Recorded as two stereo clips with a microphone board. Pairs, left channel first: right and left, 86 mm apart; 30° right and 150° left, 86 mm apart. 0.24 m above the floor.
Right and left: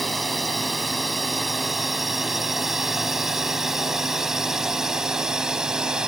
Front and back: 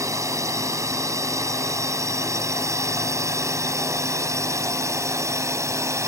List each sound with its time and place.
0.0 s a drone: straight behind; by 6.1 s 165° left